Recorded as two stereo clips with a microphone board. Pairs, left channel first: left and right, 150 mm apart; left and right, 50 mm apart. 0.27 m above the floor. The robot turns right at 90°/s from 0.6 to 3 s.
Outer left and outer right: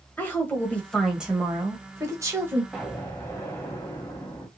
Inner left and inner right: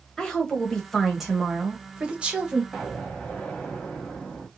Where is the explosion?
Centre (ahead or behind), 1.0 m; by 4.5 s 20° left (ahead or behind), 1.0 m.